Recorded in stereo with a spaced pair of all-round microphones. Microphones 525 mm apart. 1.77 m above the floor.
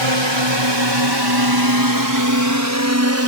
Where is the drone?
60° right (ahead or behind); by 3.3 s 25° right (ahead or behind).